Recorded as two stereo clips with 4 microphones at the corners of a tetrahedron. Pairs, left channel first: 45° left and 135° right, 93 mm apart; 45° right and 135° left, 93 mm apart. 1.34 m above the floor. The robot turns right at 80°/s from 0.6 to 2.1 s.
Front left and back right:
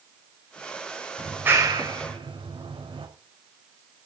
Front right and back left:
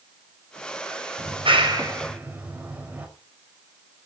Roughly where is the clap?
Behind left.